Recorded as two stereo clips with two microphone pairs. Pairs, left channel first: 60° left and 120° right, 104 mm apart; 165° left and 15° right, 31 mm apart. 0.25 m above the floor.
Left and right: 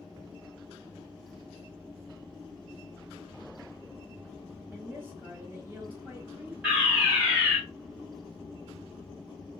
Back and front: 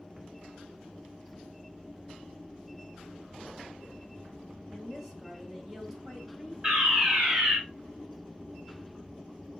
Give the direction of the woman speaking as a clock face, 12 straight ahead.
3 o'clock.